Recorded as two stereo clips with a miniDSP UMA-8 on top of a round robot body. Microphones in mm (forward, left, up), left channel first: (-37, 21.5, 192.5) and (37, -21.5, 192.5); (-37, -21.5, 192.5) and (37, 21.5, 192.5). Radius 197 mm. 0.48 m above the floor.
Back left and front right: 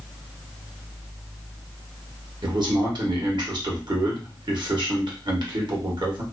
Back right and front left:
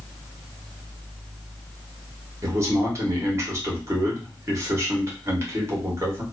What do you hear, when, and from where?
2.4 s a man speaking: 20° right, 1.2 m